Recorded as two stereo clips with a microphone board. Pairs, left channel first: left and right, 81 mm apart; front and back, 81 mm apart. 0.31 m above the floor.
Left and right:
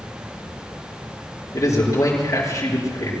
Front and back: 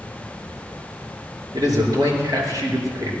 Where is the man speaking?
140° left, 6 m.